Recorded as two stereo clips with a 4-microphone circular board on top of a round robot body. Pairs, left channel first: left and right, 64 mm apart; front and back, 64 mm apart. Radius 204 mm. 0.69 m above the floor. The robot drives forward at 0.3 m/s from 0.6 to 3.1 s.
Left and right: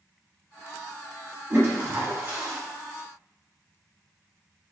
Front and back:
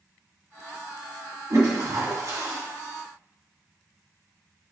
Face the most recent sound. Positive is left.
turn(degrees=-150)